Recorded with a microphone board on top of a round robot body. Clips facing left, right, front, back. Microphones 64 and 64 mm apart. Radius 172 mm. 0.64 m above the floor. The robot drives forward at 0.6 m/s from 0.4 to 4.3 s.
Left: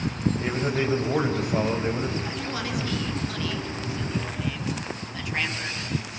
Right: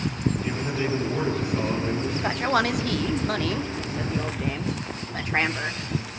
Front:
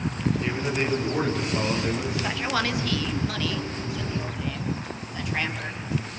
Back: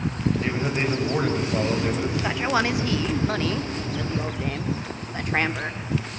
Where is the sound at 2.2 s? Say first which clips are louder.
Right 8 dB, back 5 dB; 105° right, 1.8 m; by 5.8 s 135° right, 2.5 m.